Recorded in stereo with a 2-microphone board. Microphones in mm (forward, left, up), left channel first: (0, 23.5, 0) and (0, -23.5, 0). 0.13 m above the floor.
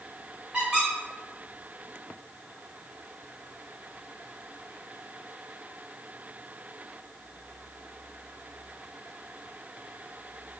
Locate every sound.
0.5 s a squeak: 10° right (ahead or behind), 1.7 m